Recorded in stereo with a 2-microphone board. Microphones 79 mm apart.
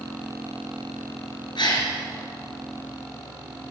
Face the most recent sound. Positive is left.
turn(degrees=65)  # may be behind; listen again after turning